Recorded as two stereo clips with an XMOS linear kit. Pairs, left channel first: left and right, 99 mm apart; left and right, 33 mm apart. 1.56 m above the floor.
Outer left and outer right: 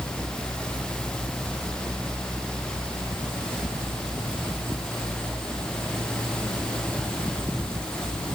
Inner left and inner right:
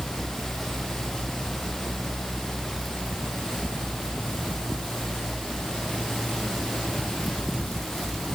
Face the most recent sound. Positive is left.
No sound to turn to.